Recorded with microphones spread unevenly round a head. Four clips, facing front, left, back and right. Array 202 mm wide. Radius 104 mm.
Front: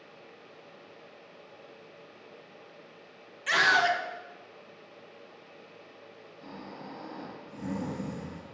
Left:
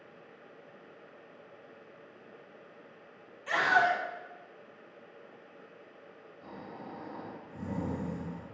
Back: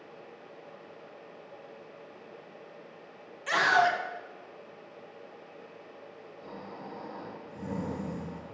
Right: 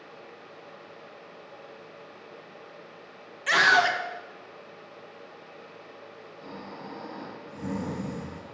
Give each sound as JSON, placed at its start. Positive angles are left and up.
{"t": 3.5, "sound": "a scream", "azimuth_deg": -85, "distance_m": 0.8}
{"t": 6.4, "sound": "snoring", "azimuth_deg": -15, "distance_m": 1.4}